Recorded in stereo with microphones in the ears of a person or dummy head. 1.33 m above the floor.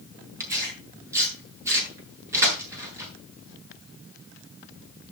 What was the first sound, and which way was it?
Tearing paper, 10° right (ahead or behind).